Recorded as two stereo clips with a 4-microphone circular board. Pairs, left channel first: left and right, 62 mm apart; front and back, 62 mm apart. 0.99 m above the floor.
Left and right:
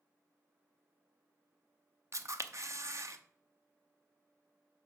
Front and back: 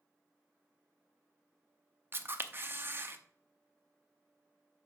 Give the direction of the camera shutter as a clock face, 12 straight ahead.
4 o'clock.